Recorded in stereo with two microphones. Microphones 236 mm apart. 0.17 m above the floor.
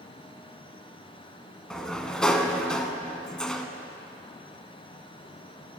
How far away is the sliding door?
About 0.5 m.